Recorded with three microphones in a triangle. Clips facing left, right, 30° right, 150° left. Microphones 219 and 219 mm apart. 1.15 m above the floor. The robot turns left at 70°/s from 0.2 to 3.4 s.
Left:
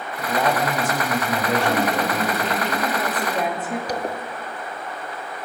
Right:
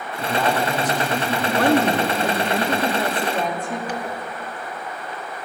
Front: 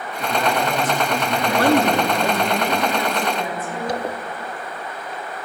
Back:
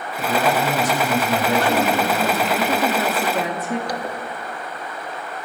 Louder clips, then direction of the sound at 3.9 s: Left 2 dB, front 2 dB; 35° left.